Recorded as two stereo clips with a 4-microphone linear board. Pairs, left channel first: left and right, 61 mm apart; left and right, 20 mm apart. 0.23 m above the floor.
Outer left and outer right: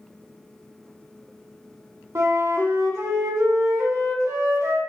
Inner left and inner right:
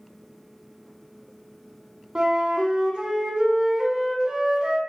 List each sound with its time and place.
2.1 s a flute: 55° right (ahead or behind), 0.6 m